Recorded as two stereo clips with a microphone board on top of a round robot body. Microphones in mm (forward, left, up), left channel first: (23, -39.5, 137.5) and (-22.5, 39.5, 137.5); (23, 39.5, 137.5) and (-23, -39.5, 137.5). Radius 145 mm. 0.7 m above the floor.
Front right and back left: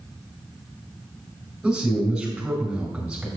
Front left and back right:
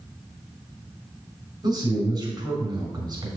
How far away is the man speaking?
About 3.5 m.